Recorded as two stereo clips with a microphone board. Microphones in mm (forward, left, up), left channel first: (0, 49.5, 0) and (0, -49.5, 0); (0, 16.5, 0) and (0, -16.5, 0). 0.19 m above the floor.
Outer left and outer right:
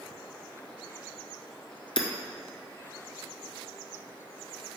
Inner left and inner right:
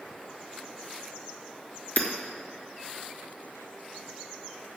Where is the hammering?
55° left (ahead or behind), 1.3 m.